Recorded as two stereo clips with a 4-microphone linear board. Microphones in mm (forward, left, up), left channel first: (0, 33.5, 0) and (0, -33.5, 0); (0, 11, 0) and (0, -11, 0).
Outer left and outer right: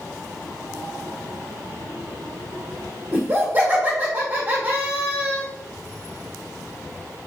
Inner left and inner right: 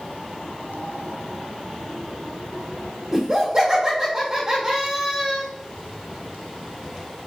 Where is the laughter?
30° right (ahead or behind), 1.2 m.